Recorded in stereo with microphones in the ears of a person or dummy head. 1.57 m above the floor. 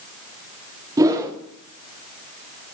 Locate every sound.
1.0 s a whoosh: 20° right (ahead or behind), 0.9 m